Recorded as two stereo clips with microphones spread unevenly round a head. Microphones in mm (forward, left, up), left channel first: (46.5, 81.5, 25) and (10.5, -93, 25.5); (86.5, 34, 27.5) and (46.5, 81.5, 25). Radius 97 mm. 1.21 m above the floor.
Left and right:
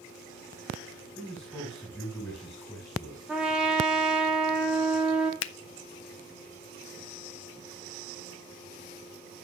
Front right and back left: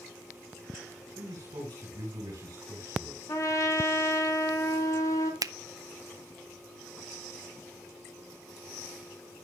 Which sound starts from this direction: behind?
A man speaking, at 1.1 s.